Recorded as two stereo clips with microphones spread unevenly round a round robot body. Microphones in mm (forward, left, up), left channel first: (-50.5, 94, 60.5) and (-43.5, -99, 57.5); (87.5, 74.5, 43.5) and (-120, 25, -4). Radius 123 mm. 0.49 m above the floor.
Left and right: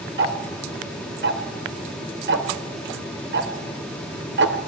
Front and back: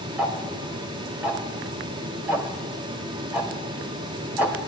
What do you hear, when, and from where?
0.2 s ticking: 90° right, 1.9 m